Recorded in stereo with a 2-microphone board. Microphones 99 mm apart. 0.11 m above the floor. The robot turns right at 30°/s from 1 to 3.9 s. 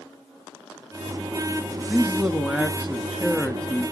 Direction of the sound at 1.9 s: 10° right (ahead or behind).